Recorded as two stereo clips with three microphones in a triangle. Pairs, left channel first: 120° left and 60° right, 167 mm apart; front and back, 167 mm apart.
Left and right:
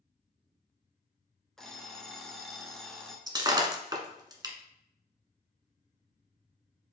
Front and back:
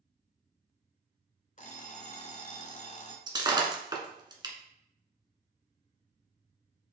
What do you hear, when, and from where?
1.6 s an alarm clock: 35° left, 1.1 m
3.3 s breaking glass: 120° right, 1.3 m